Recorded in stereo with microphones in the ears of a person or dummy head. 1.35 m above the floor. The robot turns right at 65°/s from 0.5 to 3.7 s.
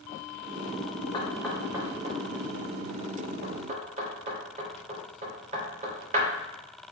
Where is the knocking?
25° left (ahead or behind), 3 m; by 6.3 s 40° right (ahead or behind), 3 m.